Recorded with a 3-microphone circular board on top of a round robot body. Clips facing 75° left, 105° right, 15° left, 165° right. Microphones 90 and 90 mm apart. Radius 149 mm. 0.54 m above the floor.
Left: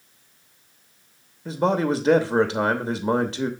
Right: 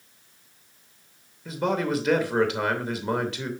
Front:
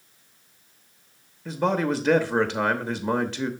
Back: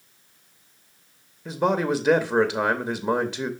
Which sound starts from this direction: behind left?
A man speaking, at 1.4 s.